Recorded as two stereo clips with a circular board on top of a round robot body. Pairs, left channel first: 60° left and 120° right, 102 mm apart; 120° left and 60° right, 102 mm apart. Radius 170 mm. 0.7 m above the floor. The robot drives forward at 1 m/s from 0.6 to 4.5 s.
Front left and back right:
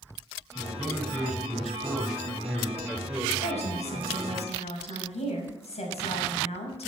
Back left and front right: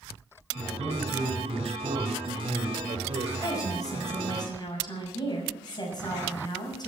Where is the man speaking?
20° right, 4.5 m; by 3.3 s 45° right, 2.5 m.